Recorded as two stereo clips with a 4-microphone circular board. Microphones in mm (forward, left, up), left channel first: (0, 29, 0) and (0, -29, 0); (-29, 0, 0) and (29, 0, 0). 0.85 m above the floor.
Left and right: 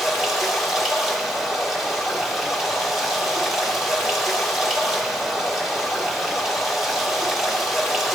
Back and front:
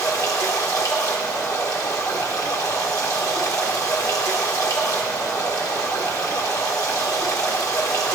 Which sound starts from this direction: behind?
Running water, at 0.0 s.